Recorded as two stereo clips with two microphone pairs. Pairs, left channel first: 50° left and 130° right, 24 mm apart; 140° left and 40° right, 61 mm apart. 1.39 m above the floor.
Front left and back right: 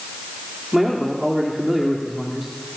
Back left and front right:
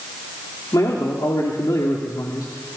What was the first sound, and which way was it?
A man speaking, 150° left.